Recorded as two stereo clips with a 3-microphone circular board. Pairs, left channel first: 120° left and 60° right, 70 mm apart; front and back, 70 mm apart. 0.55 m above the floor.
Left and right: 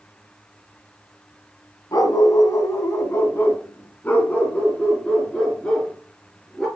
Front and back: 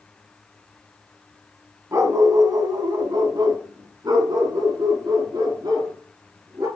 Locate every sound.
1.9 s a dog barking: 140° left, 1.3 m; by 6.7 s 155° right, 3.5 m